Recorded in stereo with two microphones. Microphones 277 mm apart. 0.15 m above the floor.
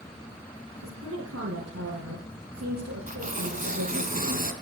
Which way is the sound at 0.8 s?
60° right (ahead or behind).